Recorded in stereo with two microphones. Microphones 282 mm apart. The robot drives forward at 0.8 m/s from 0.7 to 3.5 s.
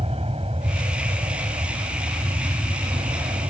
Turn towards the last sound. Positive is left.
turn(degrees=-20)  # may be behind; listen again after turning